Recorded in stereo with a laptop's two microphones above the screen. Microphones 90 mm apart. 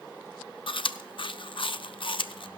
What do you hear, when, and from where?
0.7 s chewing: 65° left (ahead or behind), 0.6 m